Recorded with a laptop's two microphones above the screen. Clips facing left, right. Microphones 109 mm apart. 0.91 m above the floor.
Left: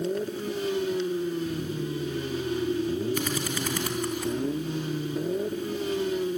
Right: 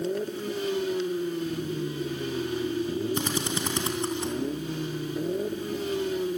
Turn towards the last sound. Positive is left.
turn(degrees=-25)  # may be behind; listen again after turning